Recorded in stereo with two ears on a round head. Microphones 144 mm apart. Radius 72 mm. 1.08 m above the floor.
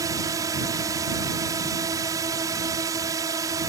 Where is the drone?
20° right (ahead or behind).